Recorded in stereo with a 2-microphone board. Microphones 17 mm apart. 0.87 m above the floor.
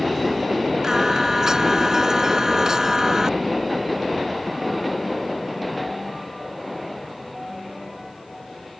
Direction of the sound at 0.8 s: 40° right (ahead or behind).